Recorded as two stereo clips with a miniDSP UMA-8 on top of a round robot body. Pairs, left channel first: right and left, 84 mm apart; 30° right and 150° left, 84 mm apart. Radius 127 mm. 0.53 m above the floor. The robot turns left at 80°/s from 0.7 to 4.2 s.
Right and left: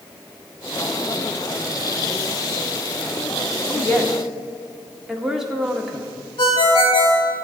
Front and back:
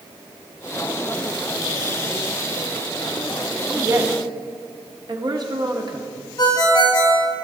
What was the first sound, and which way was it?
A woman speaking, 145° right.